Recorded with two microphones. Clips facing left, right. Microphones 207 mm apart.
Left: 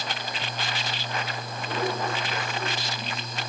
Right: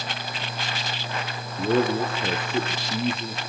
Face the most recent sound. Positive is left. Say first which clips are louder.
# right 8 dB
turn(degrees=-70)  # may be behind; listen again after turning